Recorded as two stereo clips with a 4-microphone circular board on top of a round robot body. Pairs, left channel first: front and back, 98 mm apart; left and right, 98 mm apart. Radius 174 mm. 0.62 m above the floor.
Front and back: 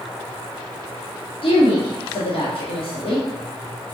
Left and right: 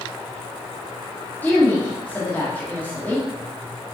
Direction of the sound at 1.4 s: 15° left.